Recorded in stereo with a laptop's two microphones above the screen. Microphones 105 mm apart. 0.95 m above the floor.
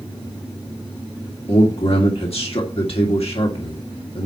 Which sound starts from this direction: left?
A man speaking, at 1.5 s.